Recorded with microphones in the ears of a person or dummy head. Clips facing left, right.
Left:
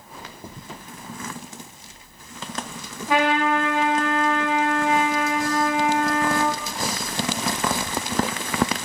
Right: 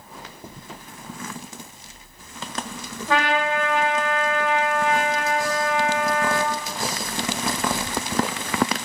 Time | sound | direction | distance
3.1 | a trumpet | 15° left (ahead or behind) | 0.9 m